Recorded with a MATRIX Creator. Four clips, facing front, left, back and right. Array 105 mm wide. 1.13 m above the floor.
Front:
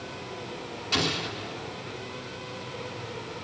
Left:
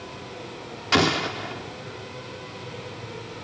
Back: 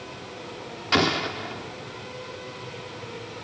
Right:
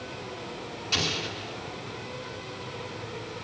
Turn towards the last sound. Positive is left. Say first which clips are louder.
# left 12 dB, back 7 dB
turn(degrees=125)